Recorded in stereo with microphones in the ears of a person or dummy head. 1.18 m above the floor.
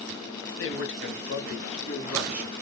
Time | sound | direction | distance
0.6 | a man speaking | 65° left (ahead or behind) | 1.0 m